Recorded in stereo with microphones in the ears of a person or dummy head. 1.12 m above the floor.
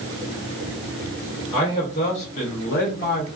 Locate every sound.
1.5 s a man speaking: 25° left (ahead or behind), 1.1 m; by 3.3 s 45° left (ahead or behind), 0.7 m